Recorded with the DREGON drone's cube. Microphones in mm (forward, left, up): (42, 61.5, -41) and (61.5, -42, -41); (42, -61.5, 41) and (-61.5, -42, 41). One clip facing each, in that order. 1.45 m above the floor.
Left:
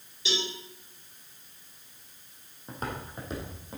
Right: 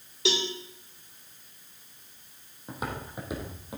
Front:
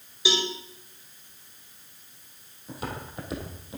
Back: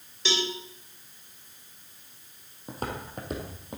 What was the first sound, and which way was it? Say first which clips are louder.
A cowbell: right 5 dB, front 2 dB; 90° right.